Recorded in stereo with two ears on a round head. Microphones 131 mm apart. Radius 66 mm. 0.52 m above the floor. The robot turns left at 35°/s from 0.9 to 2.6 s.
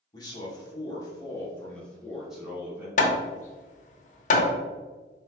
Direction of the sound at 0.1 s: 45° left.